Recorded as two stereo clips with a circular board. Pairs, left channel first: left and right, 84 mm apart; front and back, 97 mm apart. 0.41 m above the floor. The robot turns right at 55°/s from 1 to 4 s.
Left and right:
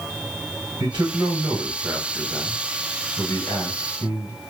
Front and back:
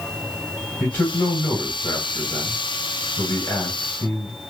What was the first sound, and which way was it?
A man speaking, 70° right.